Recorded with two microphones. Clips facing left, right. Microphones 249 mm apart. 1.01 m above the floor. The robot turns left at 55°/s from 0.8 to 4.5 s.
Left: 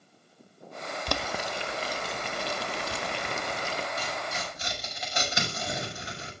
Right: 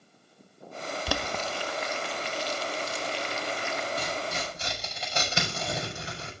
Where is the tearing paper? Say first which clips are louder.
Right 3 dB; 55° right (ahead or behind), 6 m; by 6.3 s 30° right (ahead or behind), 6 m.